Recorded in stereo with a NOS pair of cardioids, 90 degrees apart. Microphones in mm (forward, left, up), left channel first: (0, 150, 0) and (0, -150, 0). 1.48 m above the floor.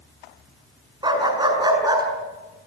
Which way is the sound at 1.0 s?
15° right.